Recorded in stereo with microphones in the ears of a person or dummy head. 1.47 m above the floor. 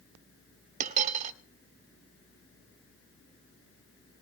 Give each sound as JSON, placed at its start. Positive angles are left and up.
{"t": 0.8, "sound": "a dropped coin", "side_deg": -40, "distance_m": 1.8}